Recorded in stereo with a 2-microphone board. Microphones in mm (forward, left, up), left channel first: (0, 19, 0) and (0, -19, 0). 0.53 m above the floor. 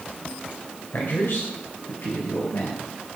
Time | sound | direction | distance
0.9 | a man speaking | 65° left (ahead or behind) | 2.5 m